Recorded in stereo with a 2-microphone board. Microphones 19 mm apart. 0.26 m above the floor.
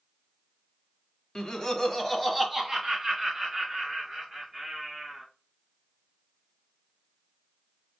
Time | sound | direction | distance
1.4 | laughter | 45° left (ahead or behind) | 1.5 m